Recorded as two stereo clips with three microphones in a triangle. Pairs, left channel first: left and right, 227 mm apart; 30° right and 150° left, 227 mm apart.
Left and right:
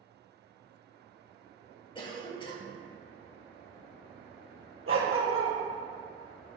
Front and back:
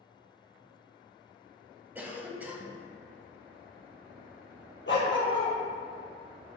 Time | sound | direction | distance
1.9 | a cough | 80° left | 1.0 m
4.9 | a dog barking | 65° right | 1.9 m